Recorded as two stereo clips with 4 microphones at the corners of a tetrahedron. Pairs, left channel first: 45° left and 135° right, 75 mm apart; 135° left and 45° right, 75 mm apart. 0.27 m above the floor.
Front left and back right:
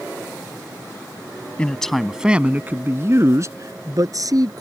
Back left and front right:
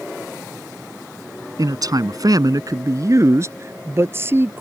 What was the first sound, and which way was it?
A man speaking, 30° right.